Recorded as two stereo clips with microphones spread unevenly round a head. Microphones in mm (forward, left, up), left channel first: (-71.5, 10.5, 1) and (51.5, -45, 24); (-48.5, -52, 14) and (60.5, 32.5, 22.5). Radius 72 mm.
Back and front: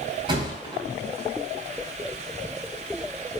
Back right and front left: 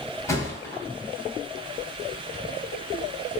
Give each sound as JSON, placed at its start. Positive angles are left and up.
{"t": 0.3, "sound": "a thud", "azimuth_deg": -70, "distance_m": 3.0}